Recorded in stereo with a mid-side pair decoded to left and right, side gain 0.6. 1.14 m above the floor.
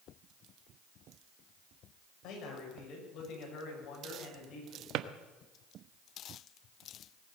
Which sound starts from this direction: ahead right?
A drawer, at 4.9 s.